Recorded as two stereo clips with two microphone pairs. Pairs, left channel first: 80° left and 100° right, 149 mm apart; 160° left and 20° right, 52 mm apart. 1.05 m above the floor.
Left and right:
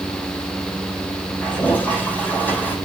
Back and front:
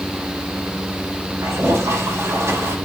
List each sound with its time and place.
1.4 s a toilet flushing: straight ahead, 3.5 m